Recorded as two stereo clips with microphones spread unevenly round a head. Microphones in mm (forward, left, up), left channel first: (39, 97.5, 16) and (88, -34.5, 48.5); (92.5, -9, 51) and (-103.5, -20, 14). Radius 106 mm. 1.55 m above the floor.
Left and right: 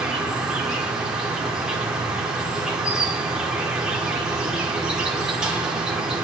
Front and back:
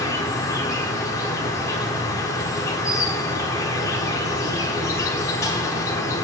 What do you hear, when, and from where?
0.0 s an insect: 25° right, 1.2 m